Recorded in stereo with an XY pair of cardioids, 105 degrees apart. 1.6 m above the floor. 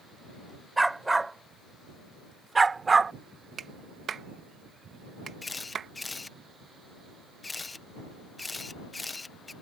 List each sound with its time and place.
0.8 s a dog barking: 15° right; by 3.1 s 35° right
3.6 s a clap: 50° right
5.4 s a camera shutter: 20° left